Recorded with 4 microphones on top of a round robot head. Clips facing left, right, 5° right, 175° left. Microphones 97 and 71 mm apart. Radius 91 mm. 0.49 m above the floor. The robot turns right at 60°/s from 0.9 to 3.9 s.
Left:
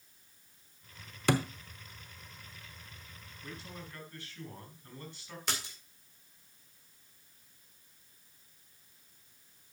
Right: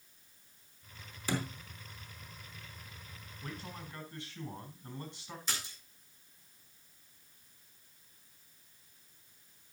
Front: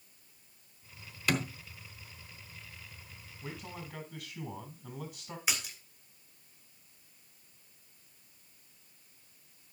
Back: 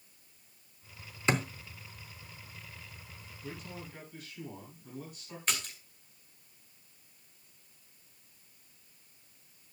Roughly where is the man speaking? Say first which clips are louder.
Right 1 dB, front 1 dB; ahead right.